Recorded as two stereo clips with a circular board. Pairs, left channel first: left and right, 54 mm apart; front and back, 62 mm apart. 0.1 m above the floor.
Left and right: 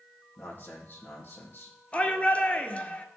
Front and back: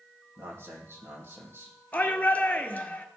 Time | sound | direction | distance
0.4 | a man speaking | 135° left | 4 m
1.9 | a shout | 50° left | 1.3 m